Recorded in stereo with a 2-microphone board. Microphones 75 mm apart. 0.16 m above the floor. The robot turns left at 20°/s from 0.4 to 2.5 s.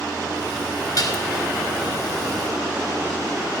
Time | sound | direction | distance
1.0 | dishes clattering | 50° left (ahead or behind) | 1.4 m